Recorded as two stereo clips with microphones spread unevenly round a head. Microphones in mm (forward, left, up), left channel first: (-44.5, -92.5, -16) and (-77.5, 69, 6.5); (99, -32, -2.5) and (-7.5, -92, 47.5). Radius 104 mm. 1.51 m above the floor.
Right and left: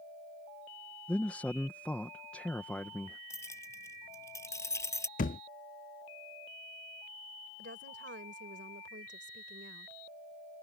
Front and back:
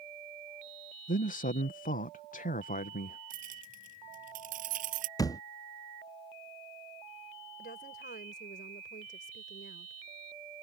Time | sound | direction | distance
1.1 | a man speaking | 10° left | ?
3.3 | keys jangling | 155° right | ?
5.2 | a thud | 45° right | ?
7.6 | a woman speaking | 60° left | ?